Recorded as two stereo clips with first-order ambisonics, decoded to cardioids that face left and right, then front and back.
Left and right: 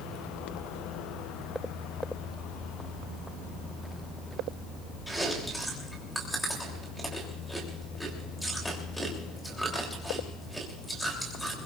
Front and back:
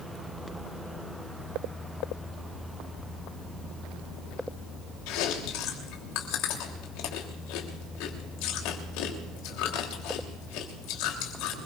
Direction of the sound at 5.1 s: Straight ahead.